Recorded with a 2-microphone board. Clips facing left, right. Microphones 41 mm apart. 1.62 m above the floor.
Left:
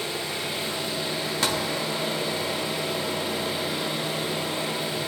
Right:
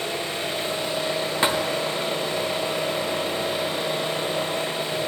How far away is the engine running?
About 8 m.